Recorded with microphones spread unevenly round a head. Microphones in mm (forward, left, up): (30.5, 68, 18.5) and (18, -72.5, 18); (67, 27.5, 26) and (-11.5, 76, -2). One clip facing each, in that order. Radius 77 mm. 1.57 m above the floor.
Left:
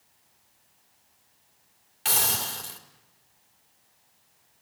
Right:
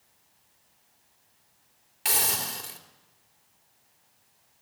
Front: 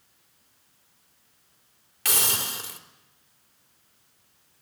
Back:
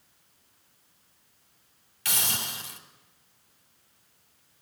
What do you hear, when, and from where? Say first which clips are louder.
2.0 s a hiss: left 1 dB, front 4 dB; 20° right, 3.5 m